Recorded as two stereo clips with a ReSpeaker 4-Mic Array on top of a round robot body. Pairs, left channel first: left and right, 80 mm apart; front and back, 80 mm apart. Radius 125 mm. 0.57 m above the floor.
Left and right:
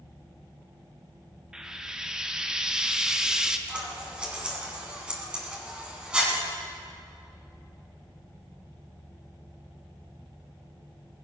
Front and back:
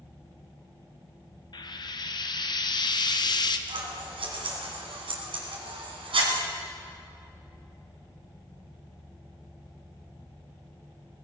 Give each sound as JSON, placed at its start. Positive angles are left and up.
{"t": 1.5, "sound": "frying", "azimuth_deg": -10, "distance_m": 1.0}
{"t": 3.7, "sound": "scissors", "azimuth_deg": -170, "distance_m": 2.0}